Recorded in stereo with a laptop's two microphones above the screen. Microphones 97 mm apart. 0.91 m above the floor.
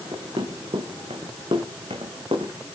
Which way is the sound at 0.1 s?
75° right (ahead or behind).